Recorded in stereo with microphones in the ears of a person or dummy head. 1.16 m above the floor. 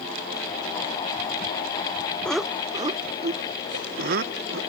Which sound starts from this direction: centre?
Laughter, at 2.2 s.